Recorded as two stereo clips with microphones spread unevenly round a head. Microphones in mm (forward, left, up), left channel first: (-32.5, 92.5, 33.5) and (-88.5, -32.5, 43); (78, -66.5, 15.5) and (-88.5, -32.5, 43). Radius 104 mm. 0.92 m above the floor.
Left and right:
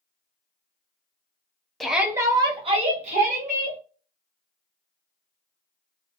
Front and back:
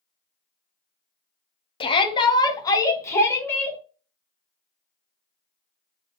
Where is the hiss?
I don't hear a hiss.